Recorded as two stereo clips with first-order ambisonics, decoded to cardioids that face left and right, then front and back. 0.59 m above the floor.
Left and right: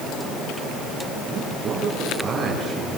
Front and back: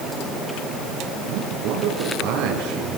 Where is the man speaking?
155° right, 8.5 m.